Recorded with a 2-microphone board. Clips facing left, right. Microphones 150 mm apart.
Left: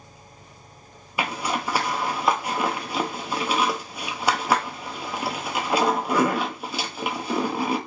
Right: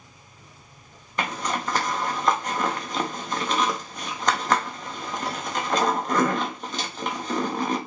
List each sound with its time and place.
1.2 s a zipper: 10° left (ahead or behind), 0.5 m